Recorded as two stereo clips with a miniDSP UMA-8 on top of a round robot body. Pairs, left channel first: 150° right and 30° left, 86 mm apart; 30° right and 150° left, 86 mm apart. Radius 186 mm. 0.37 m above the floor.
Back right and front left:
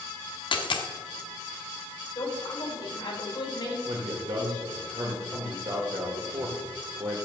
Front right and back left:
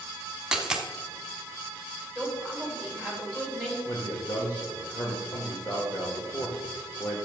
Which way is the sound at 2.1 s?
110° right.